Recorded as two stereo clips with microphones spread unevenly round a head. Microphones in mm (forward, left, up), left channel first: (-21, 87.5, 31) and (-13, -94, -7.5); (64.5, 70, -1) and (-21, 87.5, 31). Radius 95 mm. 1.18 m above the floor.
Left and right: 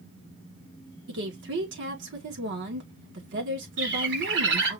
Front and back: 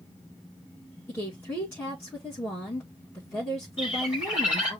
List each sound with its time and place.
1.1 s a woman speaking: 80° right, 2 m
3.8 s a bird: 110° right, 3 m